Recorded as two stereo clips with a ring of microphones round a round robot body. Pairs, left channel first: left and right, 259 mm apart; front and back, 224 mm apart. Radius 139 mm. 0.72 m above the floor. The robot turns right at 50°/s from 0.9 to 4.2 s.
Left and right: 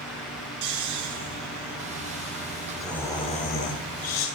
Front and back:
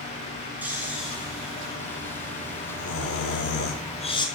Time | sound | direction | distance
0.6 | snoring | 95° right | 6.5 m